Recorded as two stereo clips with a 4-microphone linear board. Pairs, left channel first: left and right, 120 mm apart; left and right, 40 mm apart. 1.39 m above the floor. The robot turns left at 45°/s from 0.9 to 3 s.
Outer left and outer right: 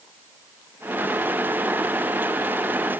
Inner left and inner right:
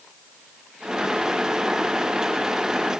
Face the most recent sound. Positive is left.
No sound to turn to.